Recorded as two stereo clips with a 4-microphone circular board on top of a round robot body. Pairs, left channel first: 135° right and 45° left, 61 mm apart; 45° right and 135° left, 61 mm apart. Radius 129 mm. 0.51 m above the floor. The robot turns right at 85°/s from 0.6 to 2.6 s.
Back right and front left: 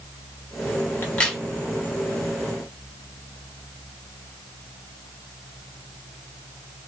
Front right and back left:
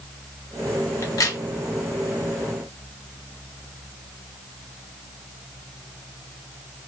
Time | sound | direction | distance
1.0 | a crack | 80° right | 0.9 m